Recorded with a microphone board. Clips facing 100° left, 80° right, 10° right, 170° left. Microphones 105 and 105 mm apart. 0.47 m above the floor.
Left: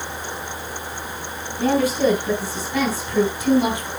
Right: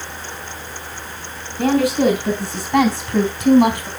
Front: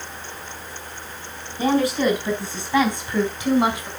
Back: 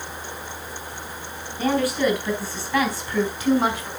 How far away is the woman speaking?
About 5 m.